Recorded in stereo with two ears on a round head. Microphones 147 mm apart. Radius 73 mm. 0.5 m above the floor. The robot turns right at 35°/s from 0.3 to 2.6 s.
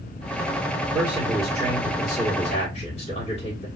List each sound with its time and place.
0.8 s a man speaking: 5° left, 1.6 m; by 3.7 s 70° left, 1.6 m